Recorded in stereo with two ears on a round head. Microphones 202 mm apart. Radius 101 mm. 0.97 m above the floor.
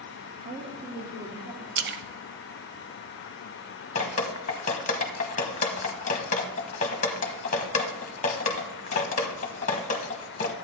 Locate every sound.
0.4 s a woman speaking: 20° right (ahead or behind), 1.7 m; by 1.7 s 30° right (ahead or behind), 3.5 m
1.8 s a splash: 50° right (ahead or behind), 0.6 m
4.0 s dripping: 35° left (ahead or behind), 1.0 m